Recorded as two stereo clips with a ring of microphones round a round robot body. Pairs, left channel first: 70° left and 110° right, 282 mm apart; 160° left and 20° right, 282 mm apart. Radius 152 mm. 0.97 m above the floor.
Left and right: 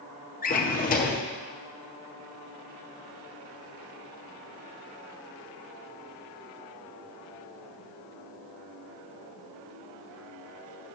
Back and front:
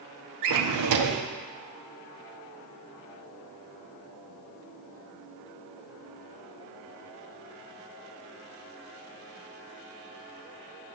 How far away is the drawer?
About 0.7 m.